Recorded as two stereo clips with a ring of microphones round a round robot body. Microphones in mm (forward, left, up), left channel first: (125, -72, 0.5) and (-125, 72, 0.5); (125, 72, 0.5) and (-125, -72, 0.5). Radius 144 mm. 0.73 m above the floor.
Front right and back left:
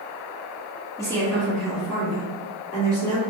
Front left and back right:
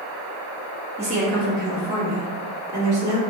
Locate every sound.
1.0 s a woman speaking: 100° right, 1.0 m; by 3.2 s 135° right, 1.9 m